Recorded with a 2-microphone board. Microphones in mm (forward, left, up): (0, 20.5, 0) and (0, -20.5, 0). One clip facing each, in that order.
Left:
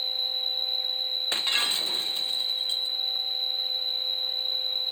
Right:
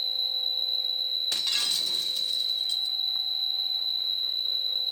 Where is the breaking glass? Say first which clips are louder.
Left 5 dB; 35° left (ahead or behind).